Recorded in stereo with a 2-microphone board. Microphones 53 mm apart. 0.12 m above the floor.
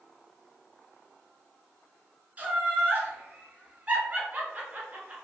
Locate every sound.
2.4 s laughter: 25° right (ahead or behind), 1.1 m